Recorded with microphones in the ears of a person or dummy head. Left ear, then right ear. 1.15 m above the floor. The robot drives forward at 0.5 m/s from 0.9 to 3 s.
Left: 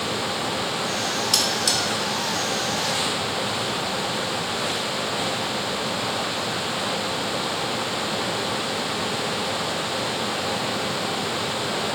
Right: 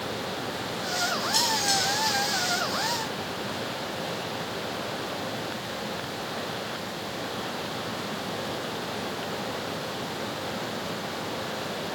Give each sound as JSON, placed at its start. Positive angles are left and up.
{"t": 1.3, "sound": "cutlery clinking", "side_deg": 75, "distance_m": 1.8}